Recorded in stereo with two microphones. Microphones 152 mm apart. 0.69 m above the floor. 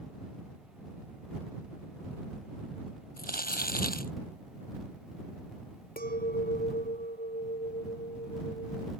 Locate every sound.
3.2 s crumpling: 75° left (ahead or behind)
6.0 s a clink: 75° left (ahead or behind)